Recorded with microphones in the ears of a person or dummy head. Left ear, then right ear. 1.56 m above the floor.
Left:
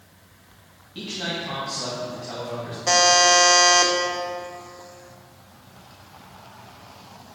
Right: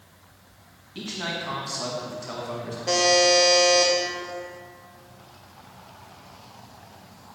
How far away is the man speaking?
About 1.5 m.